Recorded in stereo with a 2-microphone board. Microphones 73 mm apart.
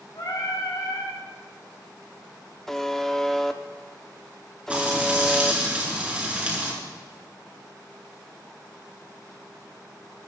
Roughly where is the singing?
Left.